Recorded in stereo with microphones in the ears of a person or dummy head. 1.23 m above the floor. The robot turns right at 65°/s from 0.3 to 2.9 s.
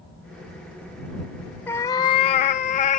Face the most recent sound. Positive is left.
turn(degrees=100)